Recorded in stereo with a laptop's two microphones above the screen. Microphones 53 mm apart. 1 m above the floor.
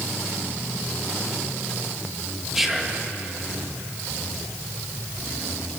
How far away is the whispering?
About 0.9 m.